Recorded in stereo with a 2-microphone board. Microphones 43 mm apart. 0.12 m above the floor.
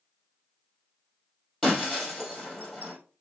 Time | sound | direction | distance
1.6 | breaking glass | 5° left (ahead or behind) | 2.5 m